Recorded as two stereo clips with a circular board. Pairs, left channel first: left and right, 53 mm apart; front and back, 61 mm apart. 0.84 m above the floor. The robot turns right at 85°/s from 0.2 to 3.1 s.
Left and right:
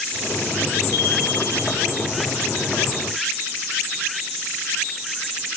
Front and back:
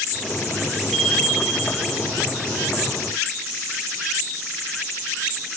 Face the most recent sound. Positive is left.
turn(degrees=-90)